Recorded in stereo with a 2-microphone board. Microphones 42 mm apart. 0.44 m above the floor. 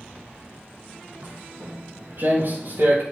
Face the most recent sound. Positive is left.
turn(degrees=-55)  # may be behind; listen again after turning